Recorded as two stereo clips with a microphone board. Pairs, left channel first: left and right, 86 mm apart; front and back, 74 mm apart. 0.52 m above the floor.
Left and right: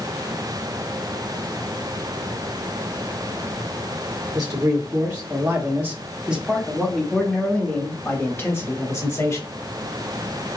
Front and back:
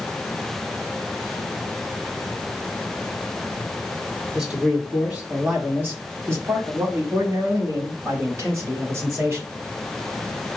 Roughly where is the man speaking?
Right.